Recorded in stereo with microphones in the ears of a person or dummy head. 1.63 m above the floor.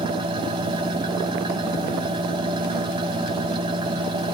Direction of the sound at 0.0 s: 25° right (ahead or behind).